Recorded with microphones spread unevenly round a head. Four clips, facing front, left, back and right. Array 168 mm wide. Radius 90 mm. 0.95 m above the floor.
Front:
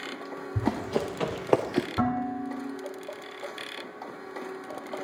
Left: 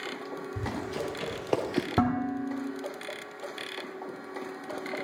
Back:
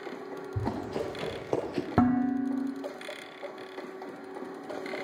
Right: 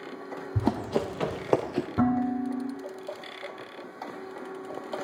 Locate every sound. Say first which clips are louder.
0.6 s running footsteps: right 8 dB, front 5 dB; 60° right, 2 m; by 1.9 s 30° left, 0.9 m
2.0 s dishes clattering: right 4 dB, back 3 dB; 160° left, 1.7 m